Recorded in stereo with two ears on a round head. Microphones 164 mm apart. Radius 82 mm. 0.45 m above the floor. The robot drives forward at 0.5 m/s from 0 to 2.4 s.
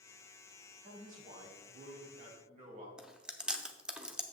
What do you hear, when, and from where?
0.8 s a man speaking: 50° right (ahead or behind), 3 m; by 2.9 s 40° right (ahead or behind), 3.5 m
3.0 s chewing: 5° right (ahead or behind), 0.7 m